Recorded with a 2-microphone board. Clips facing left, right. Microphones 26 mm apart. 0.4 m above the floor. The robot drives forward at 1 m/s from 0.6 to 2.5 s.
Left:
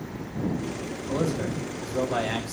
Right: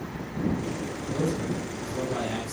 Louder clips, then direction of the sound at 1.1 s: Left 1 dB; 65° left (ahead or behind).